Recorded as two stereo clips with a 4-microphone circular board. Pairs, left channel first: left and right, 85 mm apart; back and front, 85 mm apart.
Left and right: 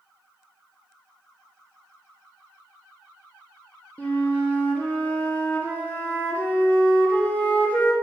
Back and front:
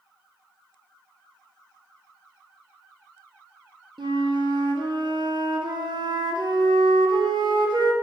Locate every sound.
4.0 s a flute: 20° left, 0.6 m